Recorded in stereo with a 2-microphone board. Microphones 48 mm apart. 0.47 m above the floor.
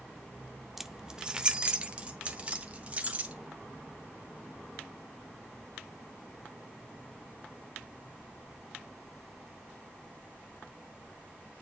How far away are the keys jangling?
About 0.6 m.